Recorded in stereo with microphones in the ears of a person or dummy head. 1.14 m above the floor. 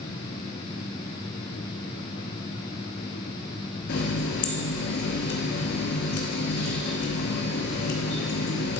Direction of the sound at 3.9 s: 55° left (ahead or behind).